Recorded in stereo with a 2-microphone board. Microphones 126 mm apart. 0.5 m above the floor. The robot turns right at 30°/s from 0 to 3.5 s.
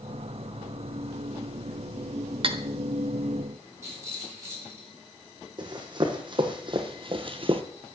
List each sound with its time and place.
2.4 s cutlery clinking: 50° right (ahead or behind), 0.7 m; by 2.6 s 45° right (ahead or behind), 0.7 m
3.8 s a rattle: 25° right (ahead or behind), 5 m
5.6 s running footsteps: 40° right (ahead or behind), 1.9 m; by 7.6 s 50° right (ahead or behind), 0.7 m